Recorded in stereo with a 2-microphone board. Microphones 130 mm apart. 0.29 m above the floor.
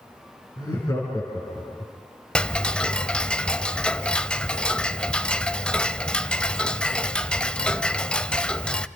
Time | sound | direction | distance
0.6 | laughter | 30° left (ahead or behind) | 4.5 m
2.4 | ticking | 10° left (ahead or behind) | 0.7 m